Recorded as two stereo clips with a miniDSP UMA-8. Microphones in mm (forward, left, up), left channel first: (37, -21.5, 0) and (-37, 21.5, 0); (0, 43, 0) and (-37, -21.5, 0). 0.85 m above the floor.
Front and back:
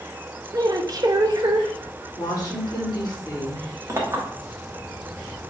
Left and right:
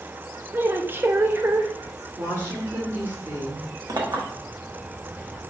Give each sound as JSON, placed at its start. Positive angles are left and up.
{"t": 0.5, "sound": "a woman speaking", "azimuth_deg": 180, "distance_m": 0.6}
{"t": 2.1, "sound": "a woman speaking", "azimuth_deg": -65, "distance_m": 2.5}
{"t": 3.9, "sound": "a clink", "azimuth_deg": -155, "distance_m": 1.1}